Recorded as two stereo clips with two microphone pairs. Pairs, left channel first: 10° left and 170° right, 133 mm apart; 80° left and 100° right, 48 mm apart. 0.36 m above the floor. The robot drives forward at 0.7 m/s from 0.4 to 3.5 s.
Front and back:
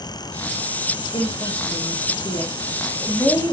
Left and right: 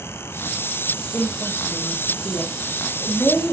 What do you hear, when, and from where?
1.1 s a woman speaking: 50° left, 3.5 m; by 3.5 s 80° left, 3 m